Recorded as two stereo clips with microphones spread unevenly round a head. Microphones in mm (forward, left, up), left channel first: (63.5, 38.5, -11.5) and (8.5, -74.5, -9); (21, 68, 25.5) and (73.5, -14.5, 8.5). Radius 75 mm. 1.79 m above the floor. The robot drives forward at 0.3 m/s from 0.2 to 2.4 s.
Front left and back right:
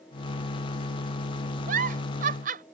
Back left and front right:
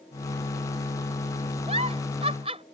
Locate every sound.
1.7 s a giggle: 115° right